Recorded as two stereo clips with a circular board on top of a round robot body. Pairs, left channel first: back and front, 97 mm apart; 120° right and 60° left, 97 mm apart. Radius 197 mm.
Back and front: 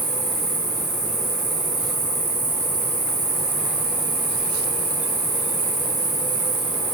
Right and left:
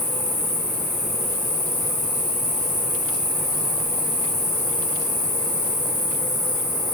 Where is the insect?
90° right, 1.8 m.